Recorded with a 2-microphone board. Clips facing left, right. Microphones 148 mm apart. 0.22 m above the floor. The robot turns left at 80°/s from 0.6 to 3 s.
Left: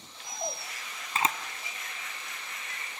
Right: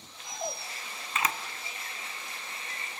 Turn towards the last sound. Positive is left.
turn(degrees=-55)  # may be behind; listen again after turning